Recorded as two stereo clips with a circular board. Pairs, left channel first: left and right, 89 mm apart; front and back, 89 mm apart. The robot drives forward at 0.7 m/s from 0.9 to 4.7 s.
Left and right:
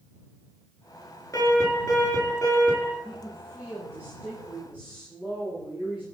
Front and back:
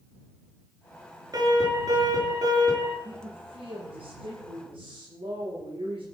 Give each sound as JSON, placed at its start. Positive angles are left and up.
{"t": 1.3, "sound": "an alarm", "azimuth_deg": 140, "distance_m": 7.0}
{"t": 3.0, "sound": "a woman speaking", "azimuth_deg": 180, "distance_m": 7.5}